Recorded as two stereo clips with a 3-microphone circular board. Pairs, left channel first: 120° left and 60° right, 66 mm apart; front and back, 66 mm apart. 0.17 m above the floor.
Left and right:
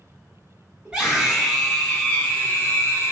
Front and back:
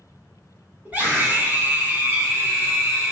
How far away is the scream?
About 1.5 m.